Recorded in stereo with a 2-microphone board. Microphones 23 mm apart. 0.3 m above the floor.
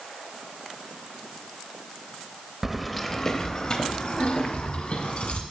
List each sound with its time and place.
2.6 s keys jangling: 15° right (ahead or behind), 0.7 m; by 5.4 s 60° left (ahead or behind), 1.7 m